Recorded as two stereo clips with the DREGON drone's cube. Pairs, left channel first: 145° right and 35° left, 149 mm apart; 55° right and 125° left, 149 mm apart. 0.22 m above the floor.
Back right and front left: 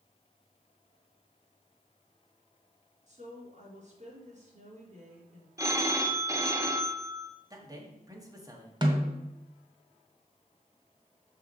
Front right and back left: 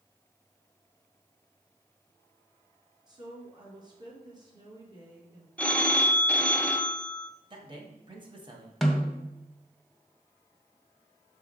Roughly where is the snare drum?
Ahead left.